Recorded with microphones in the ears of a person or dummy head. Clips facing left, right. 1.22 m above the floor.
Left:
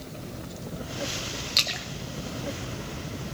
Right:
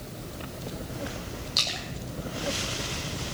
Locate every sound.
1.6 s a splash: 35° left (ahead or behind), 0.9 m